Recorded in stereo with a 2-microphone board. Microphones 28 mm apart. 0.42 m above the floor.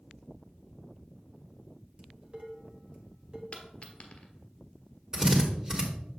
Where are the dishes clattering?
45° right (ahead or behind), 1.1 m.